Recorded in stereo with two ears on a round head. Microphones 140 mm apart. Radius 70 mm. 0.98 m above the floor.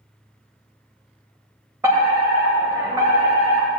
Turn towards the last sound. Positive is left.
turn(degrees=-20)  # may be behind; listen again after turning